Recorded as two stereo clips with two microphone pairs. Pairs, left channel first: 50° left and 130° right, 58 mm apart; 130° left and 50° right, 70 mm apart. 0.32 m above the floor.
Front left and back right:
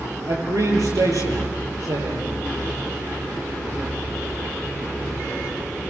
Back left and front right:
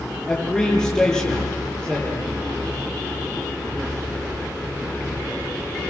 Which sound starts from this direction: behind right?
A man speaking, at 0.3 s.